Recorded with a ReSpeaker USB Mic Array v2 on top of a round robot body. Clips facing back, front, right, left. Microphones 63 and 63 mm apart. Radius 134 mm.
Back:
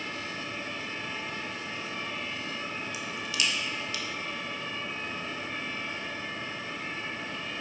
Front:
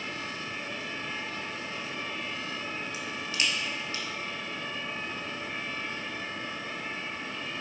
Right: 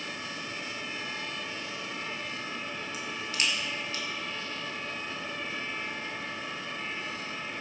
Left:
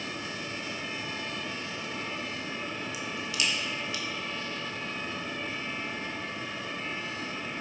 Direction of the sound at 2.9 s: 50° right.